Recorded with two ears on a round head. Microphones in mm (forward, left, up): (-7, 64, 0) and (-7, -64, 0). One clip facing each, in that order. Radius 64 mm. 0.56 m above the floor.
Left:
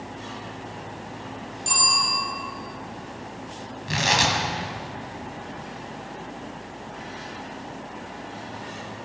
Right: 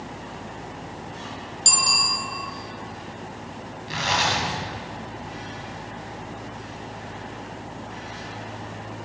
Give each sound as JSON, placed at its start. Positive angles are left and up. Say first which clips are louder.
{"t": 1.6, "sound": "a bicycle bell", "louder": "left 1 dB", "side_deg": -85, "distance_m": 5.5}
{"t": 3.9, "sound": "tearing paper", "louder": "left 1 dB", "side_deg": 65, "distance_m": 3.0}